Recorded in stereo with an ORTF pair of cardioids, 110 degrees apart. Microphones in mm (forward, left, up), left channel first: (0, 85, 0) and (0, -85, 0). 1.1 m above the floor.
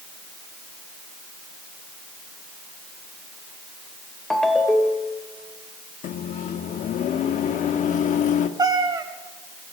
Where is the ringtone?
5° left, 1.7 m.